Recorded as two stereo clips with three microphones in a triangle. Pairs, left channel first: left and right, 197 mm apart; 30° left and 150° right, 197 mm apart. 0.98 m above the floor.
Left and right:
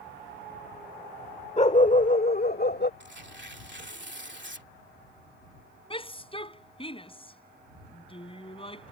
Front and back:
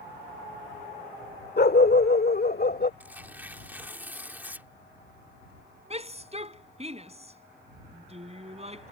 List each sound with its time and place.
1.6 s a dog barking: 40° left; by 2.9 s 65° left
3.0 s tearing paper: 70° right
5.9 s a shout: 155° left